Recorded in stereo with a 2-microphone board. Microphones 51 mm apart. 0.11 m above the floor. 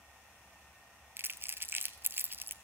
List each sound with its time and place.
1.2 s crumpling: 45° right (ahead or behind), 0.6 m